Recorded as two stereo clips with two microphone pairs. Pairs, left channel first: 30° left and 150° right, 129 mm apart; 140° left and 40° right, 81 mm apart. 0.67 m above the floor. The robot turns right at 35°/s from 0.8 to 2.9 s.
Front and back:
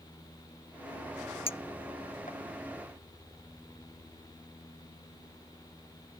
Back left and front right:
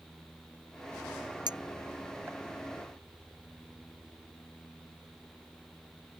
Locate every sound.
1.5 s a clink: 15° right; by 2.4 s 20° left